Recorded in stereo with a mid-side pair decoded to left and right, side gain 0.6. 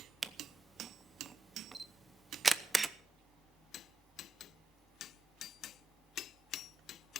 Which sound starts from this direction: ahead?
A camera shutter, at 0.2 s.